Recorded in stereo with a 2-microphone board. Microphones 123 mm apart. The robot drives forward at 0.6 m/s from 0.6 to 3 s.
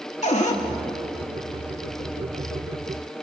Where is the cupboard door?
75° left (ahead or behind), 2.5 m.